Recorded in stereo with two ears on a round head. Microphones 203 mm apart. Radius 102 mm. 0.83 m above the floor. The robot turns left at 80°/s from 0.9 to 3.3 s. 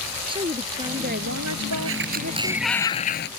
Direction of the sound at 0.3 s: 20° right.